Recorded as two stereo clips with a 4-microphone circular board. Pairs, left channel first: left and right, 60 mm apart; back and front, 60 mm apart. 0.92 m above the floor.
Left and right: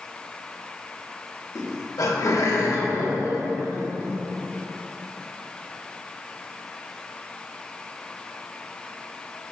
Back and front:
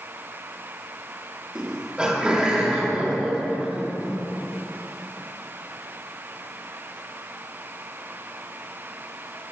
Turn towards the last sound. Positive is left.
turn(degrees=75)